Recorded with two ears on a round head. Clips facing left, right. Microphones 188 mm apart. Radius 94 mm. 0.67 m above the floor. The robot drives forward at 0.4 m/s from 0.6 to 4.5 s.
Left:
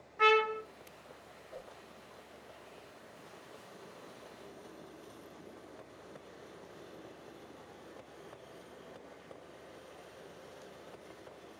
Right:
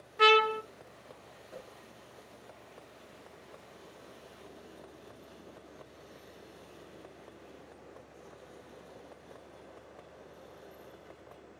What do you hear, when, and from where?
0.2 s a trumpet: 50° right (ahead or behind), 0.5 m
1.5 s a whoosh: 30° right (ahead or behind), 1.2 m